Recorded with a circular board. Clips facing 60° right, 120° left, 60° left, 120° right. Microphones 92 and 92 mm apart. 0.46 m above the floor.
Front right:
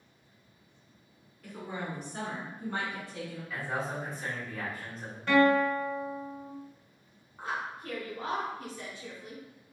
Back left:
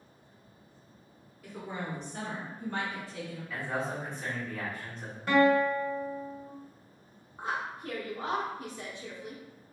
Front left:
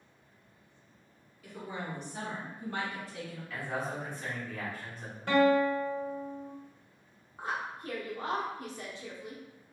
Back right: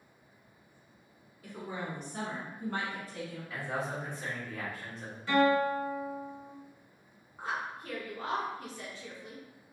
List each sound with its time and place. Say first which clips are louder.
1.4 s a woman speaking: even, back right 1 dB; 155° right, 1.3 m; by 3.4 s 100° right, 1.7 m
3.5 s a man speaking: back left 1 dB, even; 145° right, 1.2 m
5.3 s a guitar: even, front left 1 dB; 40° left, 1.0 m
7.4 s a woman speaking: back left 1 dB, even; 95° left, 0.7 m